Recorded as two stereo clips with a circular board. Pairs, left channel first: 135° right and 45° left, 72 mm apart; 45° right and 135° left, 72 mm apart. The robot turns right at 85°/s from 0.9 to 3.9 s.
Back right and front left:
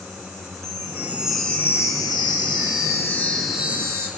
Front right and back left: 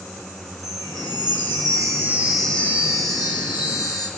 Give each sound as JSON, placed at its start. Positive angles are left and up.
{"t": 0.6, "sound": "a chime", "azimuth_deg": 95, "distance_m": 4.5}